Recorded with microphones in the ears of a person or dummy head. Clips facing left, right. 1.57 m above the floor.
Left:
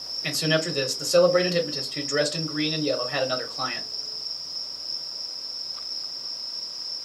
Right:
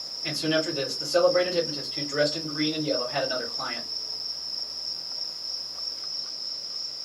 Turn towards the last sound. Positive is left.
turn(degrees=85)